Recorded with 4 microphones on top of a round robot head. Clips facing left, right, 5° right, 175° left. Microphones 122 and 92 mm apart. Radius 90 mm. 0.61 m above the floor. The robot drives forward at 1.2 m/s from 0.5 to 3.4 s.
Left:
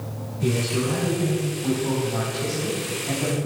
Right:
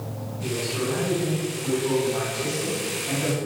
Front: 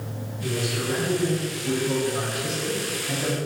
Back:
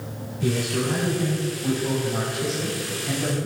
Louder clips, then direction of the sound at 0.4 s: Left 4 dB, back 3 dB; 135° left.